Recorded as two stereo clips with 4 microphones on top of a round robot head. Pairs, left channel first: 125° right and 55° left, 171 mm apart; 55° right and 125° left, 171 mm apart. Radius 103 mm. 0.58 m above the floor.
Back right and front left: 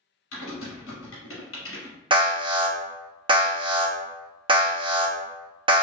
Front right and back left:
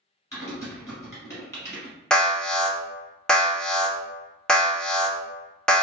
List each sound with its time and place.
0.3 s typing on a keyboard: 130° right, 1.0 m
2.1 s an alarm: 25° left, 0.6 m